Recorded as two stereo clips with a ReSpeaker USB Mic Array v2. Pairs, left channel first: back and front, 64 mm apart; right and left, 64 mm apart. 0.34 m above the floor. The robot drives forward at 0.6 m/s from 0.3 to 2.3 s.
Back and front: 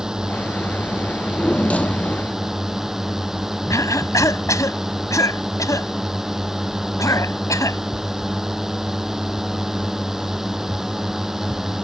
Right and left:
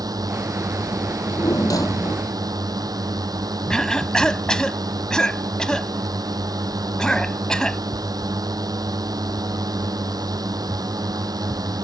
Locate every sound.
0.0 s a drone: 80° left
1.1 s a drawer: 110° right; by 2.3 s 115° right
3.7 s a cough: 170° right